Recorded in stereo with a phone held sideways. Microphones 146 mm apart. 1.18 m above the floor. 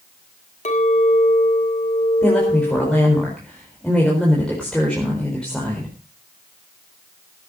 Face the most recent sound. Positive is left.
turn(degrees=5)  # may be behind; listen again after turning